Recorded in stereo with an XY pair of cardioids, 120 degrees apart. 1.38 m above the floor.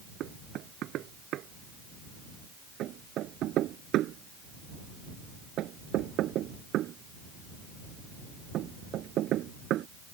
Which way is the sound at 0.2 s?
65° right.